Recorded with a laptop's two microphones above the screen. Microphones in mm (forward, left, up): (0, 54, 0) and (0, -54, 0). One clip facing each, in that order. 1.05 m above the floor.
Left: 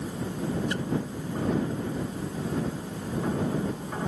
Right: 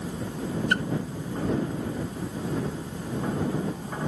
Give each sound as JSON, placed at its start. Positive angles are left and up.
{"t": 0.7, "sound": "a splash", "side_deg": -60}